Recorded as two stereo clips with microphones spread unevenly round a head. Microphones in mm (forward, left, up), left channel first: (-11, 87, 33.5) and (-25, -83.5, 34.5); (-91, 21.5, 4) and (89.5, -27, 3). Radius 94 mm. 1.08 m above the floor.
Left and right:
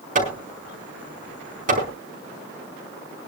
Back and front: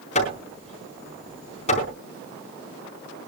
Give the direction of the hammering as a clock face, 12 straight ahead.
5 o'clock.